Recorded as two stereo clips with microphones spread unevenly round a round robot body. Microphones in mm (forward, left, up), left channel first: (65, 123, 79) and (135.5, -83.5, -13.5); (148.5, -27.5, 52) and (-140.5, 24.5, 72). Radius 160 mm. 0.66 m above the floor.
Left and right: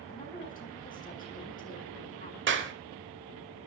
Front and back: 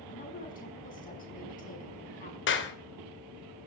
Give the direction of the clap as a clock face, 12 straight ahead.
2 o'clock.